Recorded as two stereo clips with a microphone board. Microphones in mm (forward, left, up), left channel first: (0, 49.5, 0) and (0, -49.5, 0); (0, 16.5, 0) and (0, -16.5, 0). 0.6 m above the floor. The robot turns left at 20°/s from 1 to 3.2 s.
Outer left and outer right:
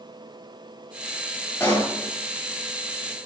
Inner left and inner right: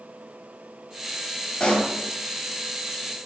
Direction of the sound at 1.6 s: 20° left (ahead or behind).